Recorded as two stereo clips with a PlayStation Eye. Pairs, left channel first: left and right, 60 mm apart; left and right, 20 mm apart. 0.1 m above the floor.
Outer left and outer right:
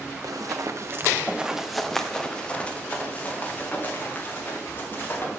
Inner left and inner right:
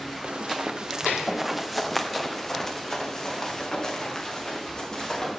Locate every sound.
0.2 s running footsteps: 80° right, 1.3 m; by 5.3 s 35° left (ahead or behind), 5 m